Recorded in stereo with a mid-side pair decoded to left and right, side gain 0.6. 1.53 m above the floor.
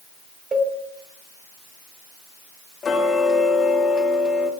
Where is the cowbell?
25° right, 1.1 m.